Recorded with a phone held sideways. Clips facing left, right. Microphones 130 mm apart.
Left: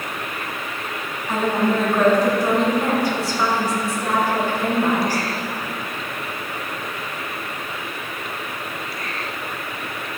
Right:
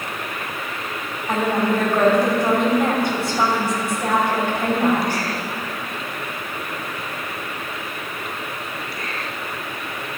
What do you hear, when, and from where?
1.3 s a woman speaking: 60° right (ahead or behind), 3.5 m